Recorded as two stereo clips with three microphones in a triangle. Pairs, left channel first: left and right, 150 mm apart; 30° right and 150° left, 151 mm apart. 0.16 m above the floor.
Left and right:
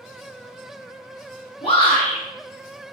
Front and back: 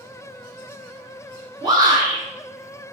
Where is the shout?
105° left, 1.4 m.